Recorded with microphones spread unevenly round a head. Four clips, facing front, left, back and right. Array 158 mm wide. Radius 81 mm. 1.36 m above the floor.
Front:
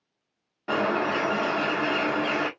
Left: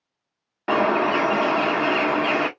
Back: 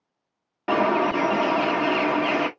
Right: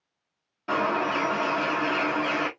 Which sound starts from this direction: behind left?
A bird, at 0.7 s.